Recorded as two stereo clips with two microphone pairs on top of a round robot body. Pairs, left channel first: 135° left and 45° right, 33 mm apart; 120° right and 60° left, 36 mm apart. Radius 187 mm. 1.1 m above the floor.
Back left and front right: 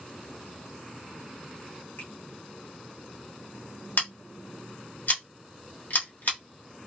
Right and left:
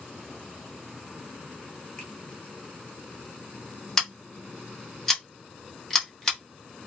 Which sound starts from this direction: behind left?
Scissors, at 4.0 s.